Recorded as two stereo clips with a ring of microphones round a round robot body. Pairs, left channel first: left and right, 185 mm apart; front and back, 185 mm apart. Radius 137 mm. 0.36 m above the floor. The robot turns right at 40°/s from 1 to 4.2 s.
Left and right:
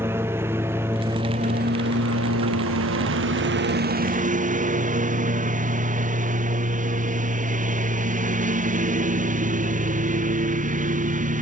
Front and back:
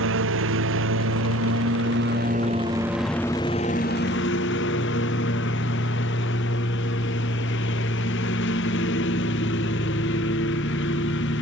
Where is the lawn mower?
170° right; by 11.4 s 45° right.